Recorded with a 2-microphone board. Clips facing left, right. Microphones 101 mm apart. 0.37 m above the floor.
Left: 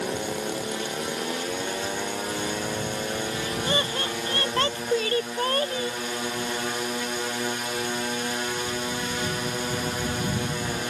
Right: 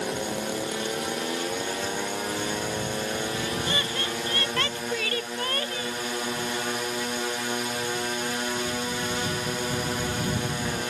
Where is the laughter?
30° left (ahead or behind).